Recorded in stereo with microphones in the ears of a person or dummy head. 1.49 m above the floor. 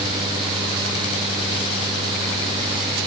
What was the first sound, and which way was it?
Only background noise.